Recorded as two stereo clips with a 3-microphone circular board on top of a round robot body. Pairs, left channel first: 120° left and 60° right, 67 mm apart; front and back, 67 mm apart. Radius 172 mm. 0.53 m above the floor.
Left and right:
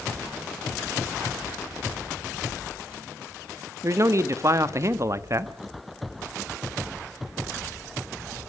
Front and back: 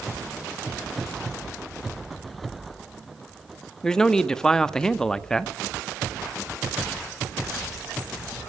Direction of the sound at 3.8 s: 80° right.